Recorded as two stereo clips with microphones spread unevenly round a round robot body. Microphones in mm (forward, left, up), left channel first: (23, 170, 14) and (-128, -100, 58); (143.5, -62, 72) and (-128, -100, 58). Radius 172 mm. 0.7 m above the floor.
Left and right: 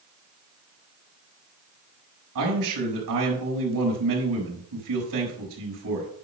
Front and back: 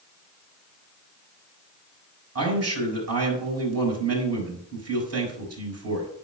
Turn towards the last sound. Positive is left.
turn(degrees=-145)